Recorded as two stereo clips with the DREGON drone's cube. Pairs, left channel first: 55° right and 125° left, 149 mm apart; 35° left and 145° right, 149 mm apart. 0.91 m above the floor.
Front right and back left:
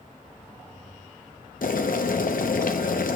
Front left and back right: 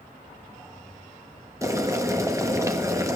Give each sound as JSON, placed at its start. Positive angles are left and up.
{"t": 1.6, "sound": "boiling", "azimuth_deg": -75, "distance_m": 0.6}